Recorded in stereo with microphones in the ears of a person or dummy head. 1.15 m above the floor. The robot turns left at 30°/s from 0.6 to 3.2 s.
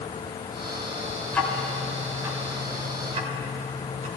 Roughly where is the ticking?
Centre.